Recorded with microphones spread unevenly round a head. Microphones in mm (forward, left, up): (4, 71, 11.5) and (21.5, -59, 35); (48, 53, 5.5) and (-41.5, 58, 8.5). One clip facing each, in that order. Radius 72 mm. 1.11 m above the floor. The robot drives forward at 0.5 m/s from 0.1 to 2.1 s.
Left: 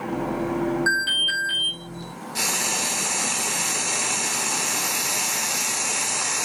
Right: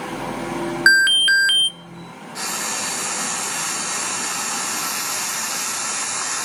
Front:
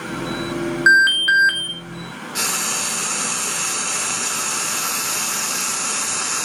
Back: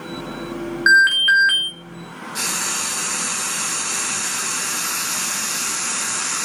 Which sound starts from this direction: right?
An alarm, at 0.9 s.